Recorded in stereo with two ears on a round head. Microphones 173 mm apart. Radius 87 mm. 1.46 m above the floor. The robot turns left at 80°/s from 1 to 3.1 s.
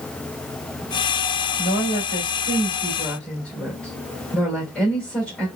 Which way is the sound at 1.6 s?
125° left.